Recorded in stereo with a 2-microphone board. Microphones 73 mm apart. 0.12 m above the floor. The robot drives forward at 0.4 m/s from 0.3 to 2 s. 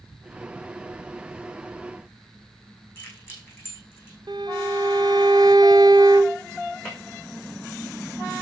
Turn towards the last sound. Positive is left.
turn(degrees=10)  # may be behind; listen again after turning